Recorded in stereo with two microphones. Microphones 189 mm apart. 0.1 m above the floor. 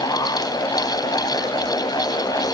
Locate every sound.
Only background noise.